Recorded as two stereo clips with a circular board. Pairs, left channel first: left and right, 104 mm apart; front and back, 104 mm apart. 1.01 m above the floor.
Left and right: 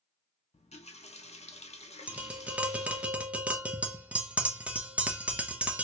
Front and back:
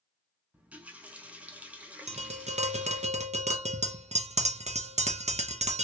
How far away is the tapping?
About 0.6 m.